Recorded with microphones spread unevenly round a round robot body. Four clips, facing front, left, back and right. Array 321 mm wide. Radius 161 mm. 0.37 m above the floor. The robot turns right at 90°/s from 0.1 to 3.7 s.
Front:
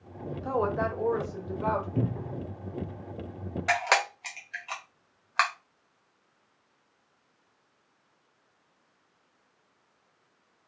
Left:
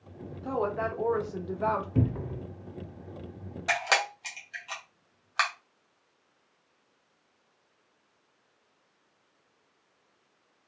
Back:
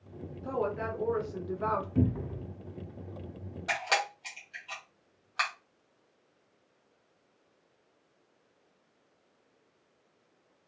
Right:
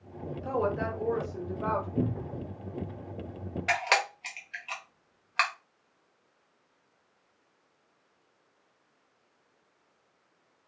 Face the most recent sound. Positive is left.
turn(degrees=-15)